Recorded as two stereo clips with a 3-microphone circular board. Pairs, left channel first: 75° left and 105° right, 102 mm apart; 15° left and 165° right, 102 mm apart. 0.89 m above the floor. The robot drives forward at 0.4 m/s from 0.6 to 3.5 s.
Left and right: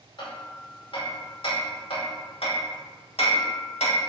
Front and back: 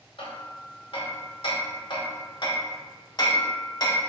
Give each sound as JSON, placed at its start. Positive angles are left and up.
{"t": 0.2, "sound": "hammering", "azimuth_deg": 40, "distance_m": 2.5}